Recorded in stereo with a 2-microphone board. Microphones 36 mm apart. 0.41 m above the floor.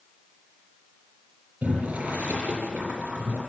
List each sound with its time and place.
1.6 s boiling: 45° right (ahead or behind), 8.5 m